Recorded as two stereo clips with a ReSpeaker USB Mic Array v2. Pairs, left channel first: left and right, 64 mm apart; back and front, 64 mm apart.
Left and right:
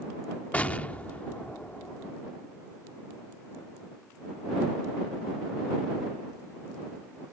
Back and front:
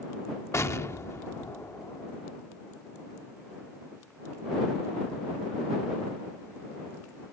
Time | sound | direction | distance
0.5 | an explosion | 150° left | ?